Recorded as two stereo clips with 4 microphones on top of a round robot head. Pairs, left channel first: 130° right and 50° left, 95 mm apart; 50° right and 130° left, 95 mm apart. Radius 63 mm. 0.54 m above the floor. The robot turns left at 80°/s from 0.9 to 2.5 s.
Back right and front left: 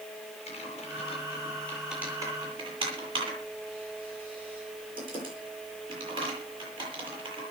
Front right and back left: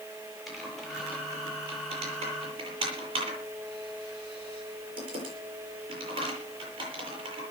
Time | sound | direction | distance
0.5 | typing on a keyboard | 140° right | 10 m